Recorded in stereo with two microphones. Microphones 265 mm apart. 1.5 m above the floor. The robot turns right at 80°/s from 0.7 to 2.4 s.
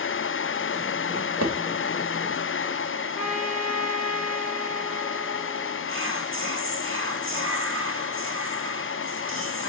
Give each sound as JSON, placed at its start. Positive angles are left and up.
{"t": 1.1, "sound": "a drawer", "side_deg": -65, "distance_m": 1.6}
{"t": 3.1, "sound": "a trumpet", "side_deg": 70, "distance_m": 1.4}
{"t": 5.9, "sound": "whispering", "side_deg": -50, "distance_m": 1.2}